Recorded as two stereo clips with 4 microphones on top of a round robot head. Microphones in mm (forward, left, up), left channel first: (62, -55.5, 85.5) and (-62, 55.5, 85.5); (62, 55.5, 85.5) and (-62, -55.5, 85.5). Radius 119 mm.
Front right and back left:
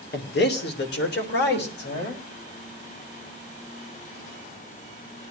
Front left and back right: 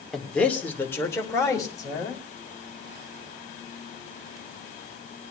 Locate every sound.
0.1 s a man speaking: 45° right, 2.5 m; by 2.2 s 25° right, 4.5 m